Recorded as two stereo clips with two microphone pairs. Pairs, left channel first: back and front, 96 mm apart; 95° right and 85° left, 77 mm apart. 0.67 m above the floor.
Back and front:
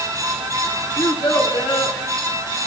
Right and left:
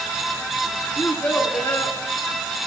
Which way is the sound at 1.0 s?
165° right.